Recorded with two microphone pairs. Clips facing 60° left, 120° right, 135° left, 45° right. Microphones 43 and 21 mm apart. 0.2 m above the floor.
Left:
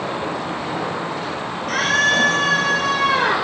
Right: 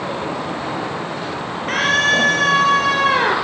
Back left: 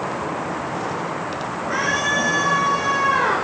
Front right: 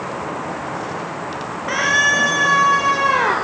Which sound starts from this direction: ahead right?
A scream, at 1.7 s.